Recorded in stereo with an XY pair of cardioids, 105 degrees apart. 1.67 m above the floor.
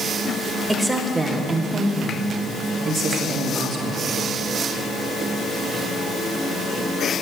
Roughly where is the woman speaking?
Ahead.